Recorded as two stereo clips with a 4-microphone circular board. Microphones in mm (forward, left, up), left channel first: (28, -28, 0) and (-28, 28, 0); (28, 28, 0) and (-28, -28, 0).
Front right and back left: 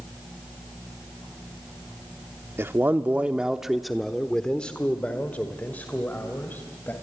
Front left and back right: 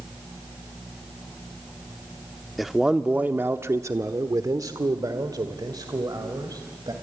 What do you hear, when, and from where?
2.6 s a man speaking: 135° left, 0.9 m; by 6.9 s 105° right, 2.5 m